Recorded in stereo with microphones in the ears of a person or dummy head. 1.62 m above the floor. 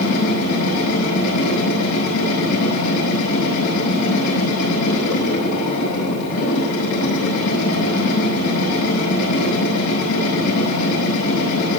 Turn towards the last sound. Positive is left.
turn(degrees=75)  # may be behind; listen again after turning